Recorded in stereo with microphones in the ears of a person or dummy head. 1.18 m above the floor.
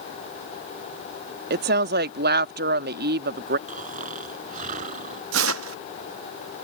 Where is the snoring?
40° right (ahead or behind).